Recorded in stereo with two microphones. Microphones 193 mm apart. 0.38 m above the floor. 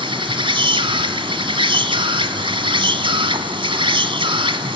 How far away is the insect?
About 1.4 m.